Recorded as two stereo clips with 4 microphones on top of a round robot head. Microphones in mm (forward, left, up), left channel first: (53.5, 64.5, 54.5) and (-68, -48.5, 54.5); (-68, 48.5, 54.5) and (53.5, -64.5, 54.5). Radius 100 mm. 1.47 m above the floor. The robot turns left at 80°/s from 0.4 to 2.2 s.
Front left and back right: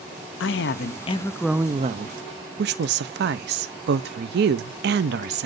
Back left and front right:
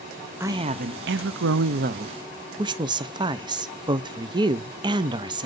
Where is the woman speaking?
35° left, 0.5 m; by 5.5 s 110° right, 0.5 m.